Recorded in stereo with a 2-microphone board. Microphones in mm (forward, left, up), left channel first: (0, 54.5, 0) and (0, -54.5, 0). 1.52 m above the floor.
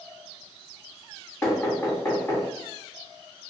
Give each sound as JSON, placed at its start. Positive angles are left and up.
{"t": 1.4, "sound": "knocking", "side_deg": 10, "distance_m": 2.0}